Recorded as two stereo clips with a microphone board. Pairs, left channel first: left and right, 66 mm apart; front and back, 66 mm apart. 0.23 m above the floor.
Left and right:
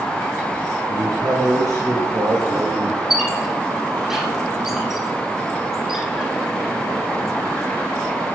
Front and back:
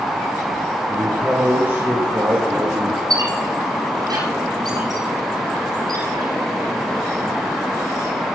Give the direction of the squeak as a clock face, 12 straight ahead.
6 o'clock.